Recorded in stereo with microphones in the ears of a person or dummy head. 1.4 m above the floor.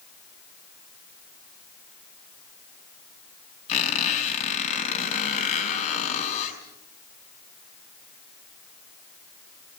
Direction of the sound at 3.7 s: 40° left (ahead or behind).